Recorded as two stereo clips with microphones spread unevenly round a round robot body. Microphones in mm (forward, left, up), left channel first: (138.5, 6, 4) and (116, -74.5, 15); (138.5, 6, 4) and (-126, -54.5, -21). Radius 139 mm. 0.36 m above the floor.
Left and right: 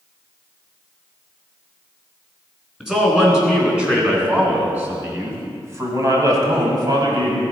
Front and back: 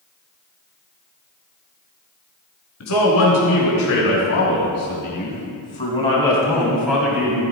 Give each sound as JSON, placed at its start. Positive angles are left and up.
{"t": 2.8, "sound": "a man speaking", "azimuth_deg": -20, "distance_m": 4.5}